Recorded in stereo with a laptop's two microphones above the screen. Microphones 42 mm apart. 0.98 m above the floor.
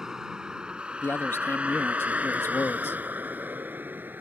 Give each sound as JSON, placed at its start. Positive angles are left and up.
{"t": 0.0, "sound": "a vehicle", "side_deg": -10}
{"t": 1.0, "sound": "a man speaking", "side_deg": 65}